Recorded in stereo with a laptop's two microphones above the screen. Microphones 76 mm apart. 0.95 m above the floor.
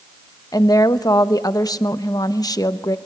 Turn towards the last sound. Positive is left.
turn(degrees=55)  # may be behind; listen again after turning